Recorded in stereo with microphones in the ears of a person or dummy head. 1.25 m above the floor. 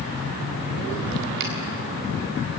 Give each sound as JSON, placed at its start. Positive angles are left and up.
{"t": 1.4, "sound": "a finger snap", "side_deg": -55, "distance_m": 5.5}